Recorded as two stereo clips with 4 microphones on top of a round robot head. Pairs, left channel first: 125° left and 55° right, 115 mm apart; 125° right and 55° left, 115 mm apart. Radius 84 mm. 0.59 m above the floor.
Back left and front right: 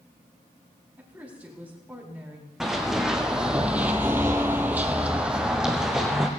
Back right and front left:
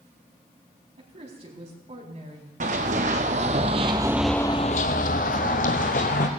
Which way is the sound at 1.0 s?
20° left.